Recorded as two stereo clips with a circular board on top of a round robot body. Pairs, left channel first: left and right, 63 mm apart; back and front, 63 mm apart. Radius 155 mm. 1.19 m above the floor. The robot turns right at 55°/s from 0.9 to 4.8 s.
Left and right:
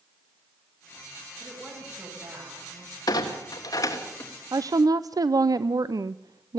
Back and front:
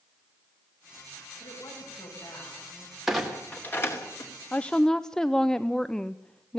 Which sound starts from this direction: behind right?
A woman speaking, at 4.5 s.